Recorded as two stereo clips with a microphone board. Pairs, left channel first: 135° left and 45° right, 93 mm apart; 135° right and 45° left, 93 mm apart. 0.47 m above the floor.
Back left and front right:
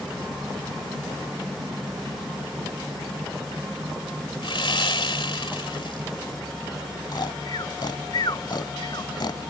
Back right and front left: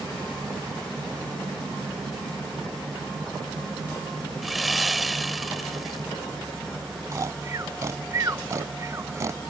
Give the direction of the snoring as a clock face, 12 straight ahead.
9 o'clock.